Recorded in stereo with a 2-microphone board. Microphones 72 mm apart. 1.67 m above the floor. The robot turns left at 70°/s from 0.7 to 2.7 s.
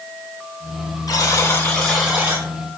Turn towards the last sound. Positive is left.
turn(degrees=-55)